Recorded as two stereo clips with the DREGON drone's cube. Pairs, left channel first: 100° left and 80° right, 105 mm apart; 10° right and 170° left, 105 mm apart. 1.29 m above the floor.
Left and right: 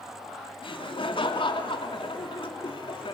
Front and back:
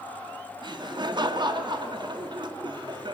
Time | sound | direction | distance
0.6 | laughter | 130° left | 2.5 m